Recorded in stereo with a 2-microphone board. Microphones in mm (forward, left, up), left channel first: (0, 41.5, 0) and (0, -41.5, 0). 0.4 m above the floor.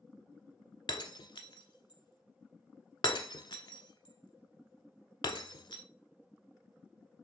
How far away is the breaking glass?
About 0.9 m.